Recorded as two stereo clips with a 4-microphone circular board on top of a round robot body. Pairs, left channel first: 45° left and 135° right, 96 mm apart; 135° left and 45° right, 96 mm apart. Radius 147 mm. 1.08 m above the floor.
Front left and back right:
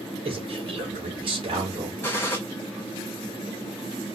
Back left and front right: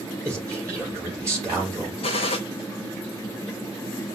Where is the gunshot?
115° left, 0.6 m.